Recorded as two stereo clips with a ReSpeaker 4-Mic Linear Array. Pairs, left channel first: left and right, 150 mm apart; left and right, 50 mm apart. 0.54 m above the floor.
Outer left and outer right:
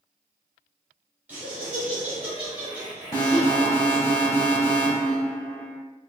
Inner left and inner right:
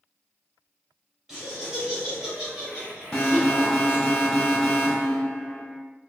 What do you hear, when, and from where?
1.3 s laughter: 10° right (ahead or behind), 1.5 m
3.1 s an alarm: 20° left (ahead or behind), 1.6 m